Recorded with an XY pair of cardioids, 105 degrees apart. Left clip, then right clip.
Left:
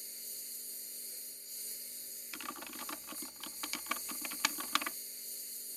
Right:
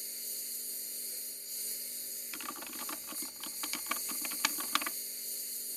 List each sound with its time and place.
0.0 s a lawn mower: 30° right
2.3 s typing on a keyboard: 5° right